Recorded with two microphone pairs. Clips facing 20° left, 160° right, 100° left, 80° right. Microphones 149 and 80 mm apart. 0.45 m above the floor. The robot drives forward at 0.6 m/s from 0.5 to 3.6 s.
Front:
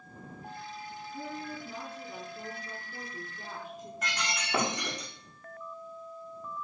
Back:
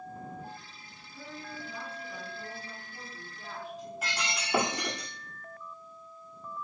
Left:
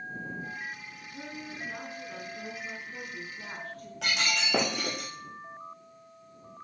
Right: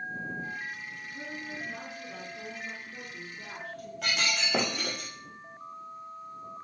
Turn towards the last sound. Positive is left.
turn(degrees=120)